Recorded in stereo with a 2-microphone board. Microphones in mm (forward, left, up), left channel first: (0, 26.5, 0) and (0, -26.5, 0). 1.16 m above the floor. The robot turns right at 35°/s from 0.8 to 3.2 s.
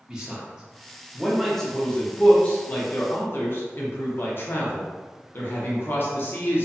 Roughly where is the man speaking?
Centre.